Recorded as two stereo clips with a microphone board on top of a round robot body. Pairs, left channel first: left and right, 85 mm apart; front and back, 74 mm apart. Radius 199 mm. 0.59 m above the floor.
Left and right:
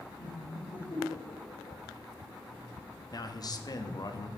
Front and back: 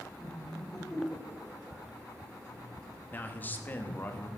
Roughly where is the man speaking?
Ahead left.